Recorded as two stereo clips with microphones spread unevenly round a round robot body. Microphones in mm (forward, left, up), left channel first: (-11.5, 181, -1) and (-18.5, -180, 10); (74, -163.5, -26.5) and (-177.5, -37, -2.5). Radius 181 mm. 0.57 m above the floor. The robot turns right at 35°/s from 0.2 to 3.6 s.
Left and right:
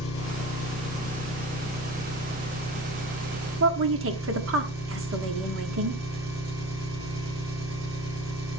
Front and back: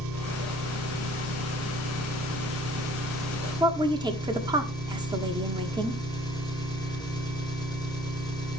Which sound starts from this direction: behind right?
A woman speaking, at 3.6 s.